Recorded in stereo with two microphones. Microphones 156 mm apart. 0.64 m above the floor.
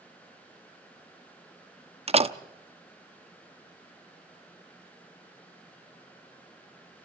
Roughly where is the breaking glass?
No breaking glass in this recording.